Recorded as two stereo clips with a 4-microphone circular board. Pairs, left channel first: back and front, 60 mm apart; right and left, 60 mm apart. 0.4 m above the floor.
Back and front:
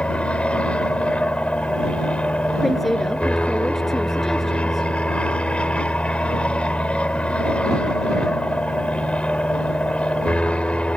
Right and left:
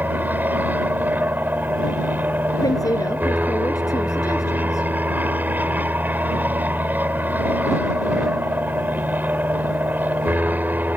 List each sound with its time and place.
0.0 s an aircraft: 125° left
2.6 s a woman speaking: 90° right